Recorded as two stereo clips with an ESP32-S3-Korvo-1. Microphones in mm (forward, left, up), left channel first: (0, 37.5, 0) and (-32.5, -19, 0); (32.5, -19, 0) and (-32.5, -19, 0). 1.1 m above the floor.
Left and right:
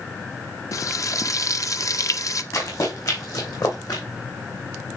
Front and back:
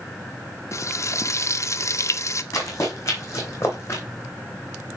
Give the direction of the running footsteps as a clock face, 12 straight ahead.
11 o'clock.